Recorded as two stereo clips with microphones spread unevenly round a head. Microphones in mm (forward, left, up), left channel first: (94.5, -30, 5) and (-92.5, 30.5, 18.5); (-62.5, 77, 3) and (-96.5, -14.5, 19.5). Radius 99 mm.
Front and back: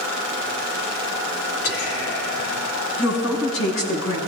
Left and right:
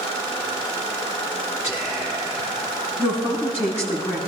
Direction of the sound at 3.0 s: 35° right.